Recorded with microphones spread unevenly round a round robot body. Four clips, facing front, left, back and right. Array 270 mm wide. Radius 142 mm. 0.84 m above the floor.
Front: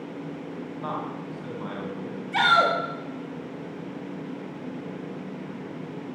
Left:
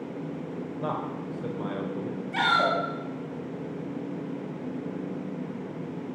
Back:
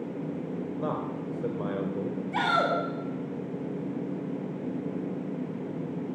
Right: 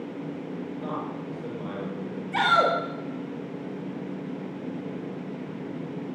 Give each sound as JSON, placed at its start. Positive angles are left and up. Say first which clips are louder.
{"t": 0.8, "sound": "a man speaking", "louder": "left 4 dB, front 1 dB", "azimuth_deg": 160, "distance_m": 3.5}
{"t": 2.3, "sound": "a shout", "louder": "right 3 dB, front 6 dB", "azimuth_deg": -105, "distance_m": 5.5}